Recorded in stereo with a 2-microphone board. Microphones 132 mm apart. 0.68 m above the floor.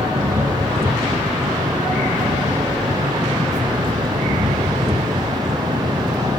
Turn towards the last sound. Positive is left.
turn(degrees=-40)  # may be behind; listen again after turning